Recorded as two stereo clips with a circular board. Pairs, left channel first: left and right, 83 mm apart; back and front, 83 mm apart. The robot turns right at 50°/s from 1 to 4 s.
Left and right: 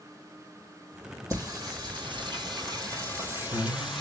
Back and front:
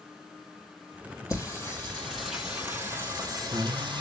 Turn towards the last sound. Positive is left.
turn(degrees=0)